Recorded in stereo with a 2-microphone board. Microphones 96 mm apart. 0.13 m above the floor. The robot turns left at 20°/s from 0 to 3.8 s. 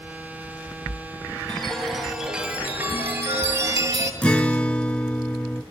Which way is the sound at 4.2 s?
15° left (ahead or behind).